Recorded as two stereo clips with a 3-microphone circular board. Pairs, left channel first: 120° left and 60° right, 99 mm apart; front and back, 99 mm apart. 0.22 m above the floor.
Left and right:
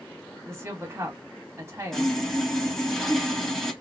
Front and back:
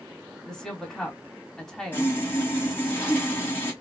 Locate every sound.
0.5 s a woman speaking: 75° right, 1.0 m
1.9 s sawing: 40° left, 1.2 m